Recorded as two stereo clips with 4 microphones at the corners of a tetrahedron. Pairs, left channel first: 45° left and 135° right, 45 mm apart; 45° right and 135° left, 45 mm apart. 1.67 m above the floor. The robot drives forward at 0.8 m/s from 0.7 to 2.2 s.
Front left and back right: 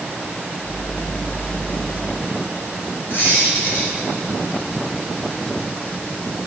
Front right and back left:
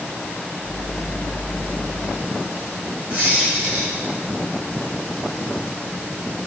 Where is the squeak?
85° left, 3 m.